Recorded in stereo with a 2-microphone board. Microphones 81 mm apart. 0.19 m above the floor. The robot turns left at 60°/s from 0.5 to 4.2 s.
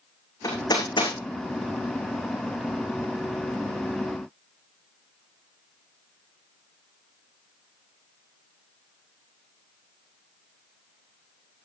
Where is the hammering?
45° left (ahead or behind), 8.5 m; by 1.1 s 80° left, 8.5 m.